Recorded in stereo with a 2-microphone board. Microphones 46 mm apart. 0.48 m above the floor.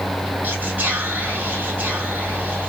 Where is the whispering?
35° right (ahead or behind), 1.1 m.